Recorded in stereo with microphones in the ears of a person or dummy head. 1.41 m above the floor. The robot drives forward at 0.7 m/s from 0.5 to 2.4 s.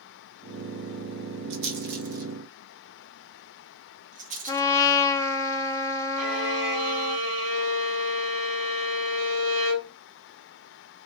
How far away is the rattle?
About 1.1 m.